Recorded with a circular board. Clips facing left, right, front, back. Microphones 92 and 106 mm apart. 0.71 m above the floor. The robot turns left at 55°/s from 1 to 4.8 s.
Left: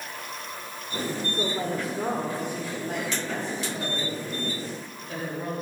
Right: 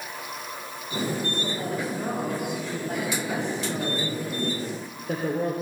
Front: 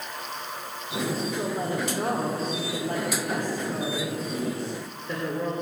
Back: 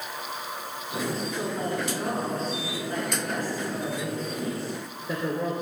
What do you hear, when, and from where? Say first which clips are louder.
1.3 s a woman speaking: left 1 dB, front 1 dB; 90° left, 2.5 m; by 5.6 s 100° right, 2.5 m